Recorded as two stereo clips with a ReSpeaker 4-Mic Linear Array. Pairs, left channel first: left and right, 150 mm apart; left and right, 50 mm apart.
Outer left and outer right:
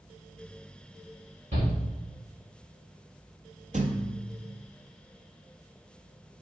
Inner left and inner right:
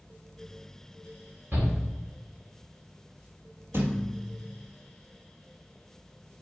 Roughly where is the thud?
Right.